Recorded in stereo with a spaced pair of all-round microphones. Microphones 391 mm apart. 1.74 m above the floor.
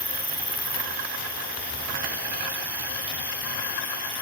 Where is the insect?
75° left (ahead or behind).